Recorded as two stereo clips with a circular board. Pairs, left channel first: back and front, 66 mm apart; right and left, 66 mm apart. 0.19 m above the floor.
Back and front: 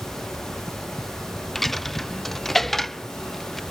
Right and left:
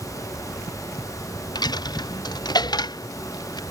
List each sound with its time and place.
1.6 s a dropped coin: 95° right